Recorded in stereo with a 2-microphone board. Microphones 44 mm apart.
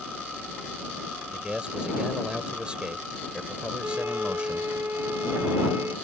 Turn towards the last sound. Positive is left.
turn(degrees=-60)  # may be behind; listen again after turning